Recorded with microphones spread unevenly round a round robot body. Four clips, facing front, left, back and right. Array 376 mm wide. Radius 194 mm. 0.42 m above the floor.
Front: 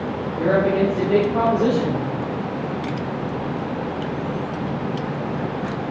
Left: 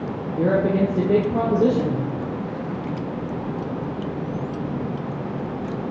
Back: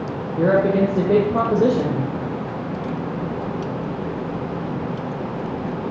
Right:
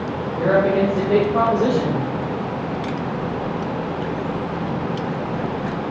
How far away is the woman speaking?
About 1.4 m.